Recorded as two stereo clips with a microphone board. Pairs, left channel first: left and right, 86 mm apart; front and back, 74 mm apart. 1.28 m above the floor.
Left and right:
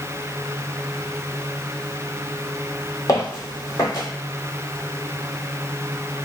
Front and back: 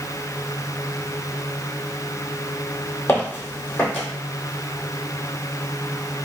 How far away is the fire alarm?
I don't hear a fire alarm.